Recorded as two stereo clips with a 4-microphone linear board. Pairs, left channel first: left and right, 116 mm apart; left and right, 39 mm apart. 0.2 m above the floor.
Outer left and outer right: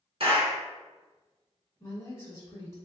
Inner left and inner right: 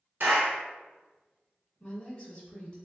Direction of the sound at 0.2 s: 55° right (ahead or behind).